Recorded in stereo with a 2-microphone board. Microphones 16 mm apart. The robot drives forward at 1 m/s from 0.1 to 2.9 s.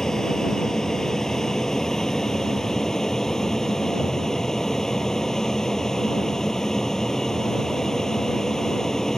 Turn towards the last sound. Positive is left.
turn(degrees=25)  # may be behind; listen again after turning